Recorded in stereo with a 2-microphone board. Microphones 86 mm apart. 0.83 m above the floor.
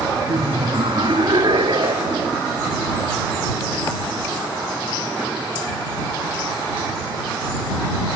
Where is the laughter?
70° right (ahead or behind).